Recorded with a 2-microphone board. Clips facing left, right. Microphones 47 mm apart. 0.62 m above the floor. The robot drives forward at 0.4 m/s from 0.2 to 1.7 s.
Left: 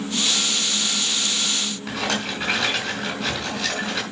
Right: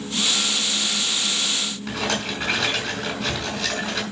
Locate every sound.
1.9 s a rattle: 5° left (ahead or behind), 4.5 m